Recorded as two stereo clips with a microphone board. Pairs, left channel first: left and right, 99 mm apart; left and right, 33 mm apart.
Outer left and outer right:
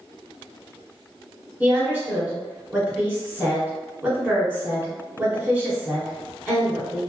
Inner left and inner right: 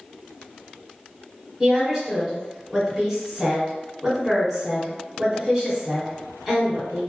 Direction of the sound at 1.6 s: 10° right (ahead or behind).